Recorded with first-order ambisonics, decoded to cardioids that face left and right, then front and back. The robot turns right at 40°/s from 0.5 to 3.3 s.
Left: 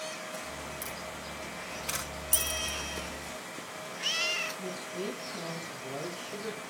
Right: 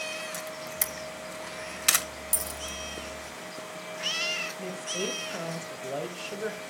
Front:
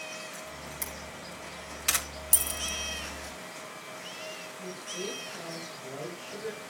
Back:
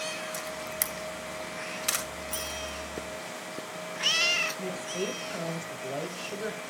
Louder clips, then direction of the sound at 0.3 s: Right 4 dB, back 6 dB; 140° right.